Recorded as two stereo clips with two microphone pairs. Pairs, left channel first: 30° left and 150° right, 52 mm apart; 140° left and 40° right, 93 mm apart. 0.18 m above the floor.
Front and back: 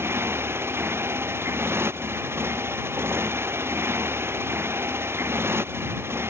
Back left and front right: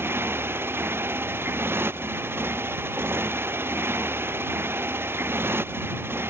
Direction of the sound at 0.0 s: 105° right.